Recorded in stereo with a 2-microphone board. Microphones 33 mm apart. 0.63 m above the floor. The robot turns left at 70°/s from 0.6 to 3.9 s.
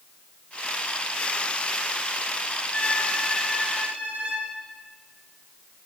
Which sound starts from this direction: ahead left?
A violin, at 2.7 s.